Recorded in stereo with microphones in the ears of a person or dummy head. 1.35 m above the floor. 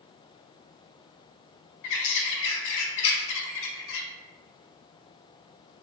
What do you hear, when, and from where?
1.8 s a bird: 65° left (ahead or behind), 0.6 m